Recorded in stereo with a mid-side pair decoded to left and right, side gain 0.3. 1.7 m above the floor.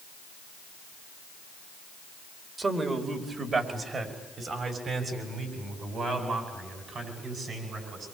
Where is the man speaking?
45° right, 4.5 m; by 8.1 s 70° right, 11.5 m.